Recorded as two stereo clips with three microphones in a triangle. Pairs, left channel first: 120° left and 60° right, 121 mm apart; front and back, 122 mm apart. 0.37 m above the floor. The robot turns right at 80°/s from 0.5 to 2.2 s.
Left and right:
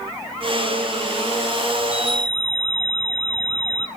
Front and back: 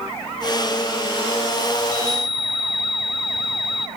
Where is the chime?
5° left, 0.6 m; by 3.9 s 40° left, 0.6 m.